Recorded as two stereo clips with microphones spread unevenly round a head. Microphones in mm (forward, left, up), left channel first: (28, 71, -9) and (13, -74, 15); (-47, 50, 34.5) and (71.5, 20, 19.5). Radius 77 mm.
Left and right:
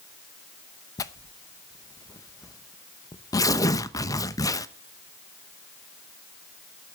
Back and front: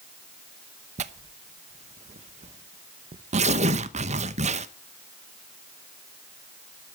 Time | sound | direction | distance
1.0 | tearing paper | 15° left | 0.8 m